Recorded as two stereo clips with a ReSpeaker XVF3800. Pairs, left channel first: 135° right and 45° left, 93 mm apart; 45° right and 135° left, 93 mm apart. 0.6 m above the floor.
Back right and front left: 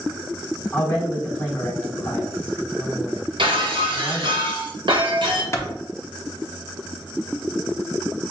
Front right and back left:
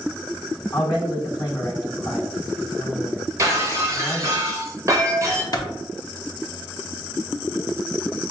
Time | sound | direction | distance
0.7 | a man speaking | 70° right | 1.3 m
3.4 | breaking glass | 80° left | 0.9 m
5.5 | a clap | 80° right | 0.6 m